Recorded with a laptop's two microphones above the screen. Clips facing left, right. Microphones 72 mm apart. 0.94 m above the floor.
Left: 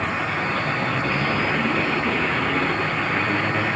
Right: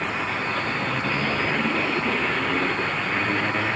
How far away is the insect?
About 3.5 m.